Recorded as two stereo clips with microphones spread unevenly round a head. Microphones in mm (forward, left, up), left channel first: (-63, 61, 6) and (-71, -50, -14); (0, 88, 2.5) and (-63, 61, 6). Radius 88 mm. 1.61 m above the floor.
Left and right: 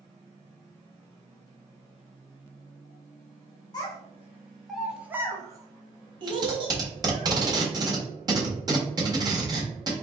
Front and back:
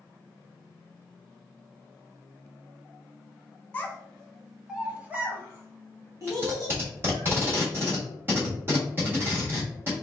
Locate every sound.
3.7 s a child speaking: 85° left, 1.0 m; by 7.3 s 130° right, 1.7 m
6.3 s tape being pulled: 130° right, 1.4 m